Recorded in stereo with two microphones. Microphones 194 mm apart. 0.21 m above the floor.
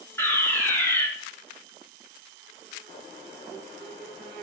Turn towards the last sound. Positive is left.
turn(degrees=10)  # may be behind; listen again after turning